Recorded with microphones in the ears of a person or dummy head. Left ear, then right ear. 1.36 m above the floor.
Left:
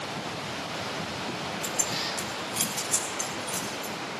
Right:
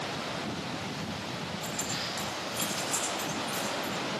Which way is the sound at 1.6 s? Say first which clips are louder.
Left 4 dB; 10° left (ahead or behind).